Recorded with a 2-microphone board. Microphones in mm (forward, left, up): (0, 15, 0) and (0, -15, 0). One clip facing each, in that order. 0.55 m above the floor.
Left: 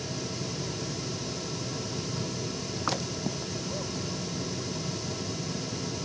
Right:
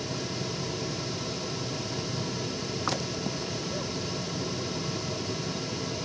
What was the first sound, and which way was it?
Only background noise.